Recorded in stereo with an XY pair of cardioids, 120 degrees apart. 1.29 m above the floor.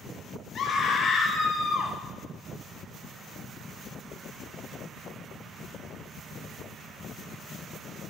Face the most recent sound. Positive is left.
turn(degrees=50)